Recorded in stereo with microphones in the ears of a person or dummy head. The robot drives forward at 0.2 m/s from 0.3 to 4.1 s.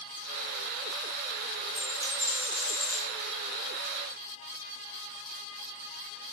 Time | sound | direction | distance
1.8 | a dropped coin | 10° right (ahead or behind) | 1.9 m